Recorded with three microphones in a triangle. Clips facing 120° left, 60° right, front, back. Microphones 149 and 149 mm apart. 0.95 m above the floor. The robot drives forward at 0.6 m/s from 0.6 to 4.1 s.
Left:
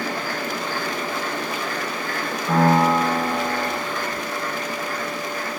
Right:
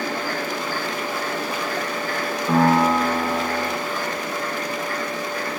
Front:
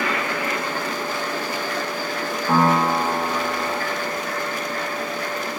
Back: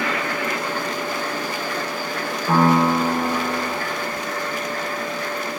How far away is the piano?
About 3.5 m.